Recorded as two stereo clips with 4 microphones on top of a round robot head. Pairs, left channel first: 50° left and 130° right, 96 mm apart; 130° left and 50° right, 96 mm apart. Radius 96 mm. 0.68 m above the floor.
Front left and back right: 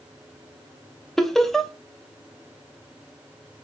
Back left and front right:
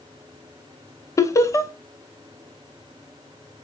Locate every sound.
1.2 s laughter: 135° left, 0.6 m